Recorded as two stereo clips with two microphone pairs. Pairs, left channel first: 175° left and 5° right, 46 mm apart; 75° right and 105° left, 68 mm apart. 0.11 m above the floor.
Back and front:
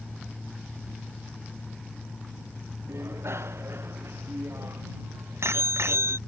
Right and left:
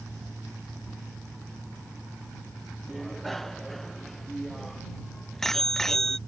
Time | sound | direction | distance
2.9 | a bicycle bell | 15° left | ?